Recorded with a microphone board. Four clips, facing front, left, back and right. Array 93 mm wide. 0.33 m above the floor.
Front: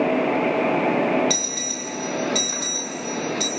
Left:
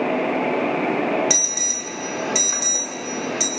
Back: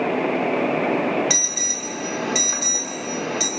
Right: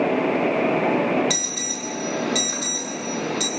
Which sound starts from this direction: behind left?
An alarm, at 1.3 s.